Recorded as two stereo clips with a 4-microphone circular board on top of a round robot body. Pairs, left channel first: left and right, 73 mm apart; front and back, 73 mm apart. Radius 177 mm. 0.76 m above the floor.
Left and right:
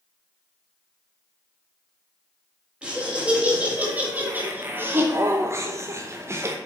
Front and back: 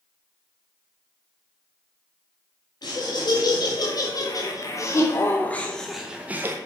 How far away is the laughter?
About 3 m.